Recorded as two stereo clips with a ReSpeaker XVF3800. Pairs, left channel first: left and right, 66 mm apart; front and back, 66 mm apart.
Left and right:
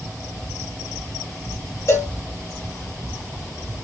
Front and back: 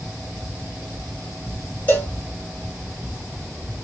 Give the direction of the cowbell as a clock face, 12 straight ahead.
10 o'clock.